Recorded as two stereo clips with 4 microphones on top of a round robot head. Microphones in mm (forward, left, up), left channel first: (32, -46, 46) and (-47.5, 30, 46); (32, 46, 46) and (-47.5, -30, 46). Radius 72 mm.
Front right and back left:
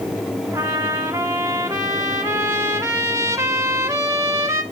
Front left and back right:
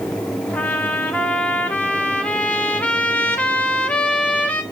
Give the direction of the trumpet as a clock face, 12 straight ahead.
9 o'clock.